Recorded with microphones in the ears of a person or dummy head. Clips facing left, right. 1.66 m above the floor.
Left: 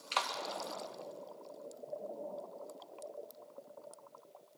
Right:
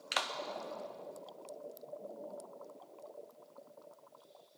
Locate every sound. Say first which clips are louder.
0.1 s a clap: left 1 dB; 20° right (ahead or behind), 0.8 m